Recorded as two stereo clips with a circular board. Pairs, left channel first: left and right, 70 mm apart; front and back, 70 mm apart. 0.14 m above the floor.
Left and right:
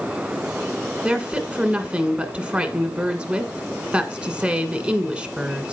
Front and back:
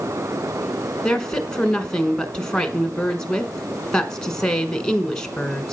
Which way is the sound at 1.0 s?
60° right.